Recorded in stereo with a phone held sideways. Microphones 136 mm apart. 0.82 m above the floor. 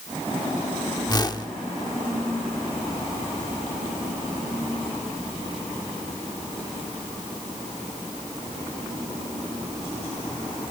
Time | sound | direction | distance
1.1 | a whoosh | 30° left (ahead or behind) | 1.0 m